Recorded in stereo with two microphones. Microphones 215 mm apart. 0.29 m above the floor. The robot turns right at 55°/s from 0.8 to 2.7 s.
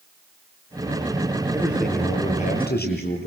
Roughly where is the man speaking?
Ahead.